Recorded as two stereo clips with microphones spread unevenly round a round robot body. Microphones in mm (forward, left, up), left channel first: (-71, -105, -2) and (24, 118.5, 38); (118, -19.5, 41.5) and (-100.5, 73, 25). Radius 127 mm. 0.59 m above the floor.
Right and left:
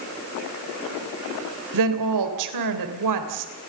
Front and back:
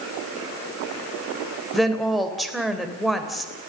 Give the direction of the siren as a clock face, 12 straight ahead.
I don't hear a siren.